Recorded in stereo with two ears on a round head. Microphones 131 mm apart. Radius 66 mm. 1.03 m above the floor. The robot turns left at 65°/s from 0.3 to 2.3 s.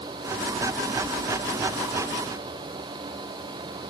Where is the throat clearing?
No throat clearing in this recording.